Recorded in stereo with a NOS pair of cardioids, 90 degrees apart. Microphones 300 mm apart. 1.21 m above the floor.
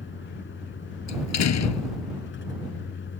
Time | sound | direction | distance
0.0 | a vehicle | 40° left | ?
1.1 | a door slam | 60° left | ?